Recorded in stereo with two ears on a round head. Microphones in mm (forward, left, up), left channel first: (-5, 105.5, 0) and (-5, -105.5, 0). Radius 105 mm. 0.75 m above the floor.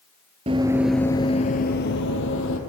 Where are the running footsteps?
25° right (ahead or behind), 0.8 m; by 2.6 s 60° left (ahead or behind), 1.5 m.